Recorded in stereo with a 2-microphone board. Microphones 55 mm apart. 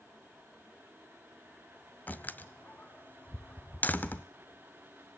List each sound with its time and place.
2.1 s a door slam: 30° left (ahead or behind), 0.9 m